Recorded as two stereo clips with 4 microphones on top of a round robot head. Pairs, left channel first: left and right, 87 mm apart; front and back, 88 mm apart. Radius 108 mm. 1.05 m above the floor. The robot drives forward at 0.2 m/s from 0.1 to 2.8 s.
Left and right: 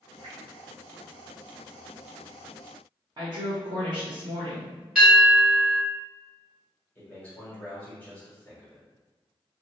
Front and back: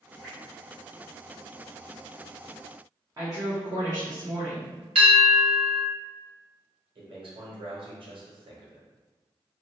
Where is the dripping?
80° right, 0.6 m.